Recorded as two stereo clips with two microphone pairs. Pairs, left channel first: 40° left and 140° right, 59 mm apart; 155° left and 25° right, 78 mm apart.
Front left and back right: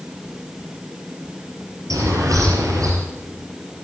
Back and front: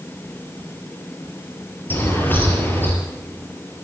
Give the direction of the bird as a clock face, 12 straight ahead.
5 o'clock.